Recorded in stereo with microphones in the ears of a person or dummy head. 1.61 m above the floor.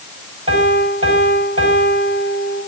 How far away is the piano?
About 5 m.